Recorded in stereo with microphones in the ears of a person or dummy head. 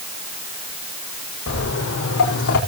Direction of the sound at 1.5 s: 75° left (ahead or behind).